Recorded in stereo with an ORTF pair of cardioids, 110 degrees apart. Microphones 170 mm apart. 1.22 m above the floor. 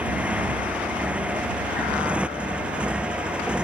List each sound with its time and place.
0.0 s a motorcycle: 10° right; by 3.6 s 5° right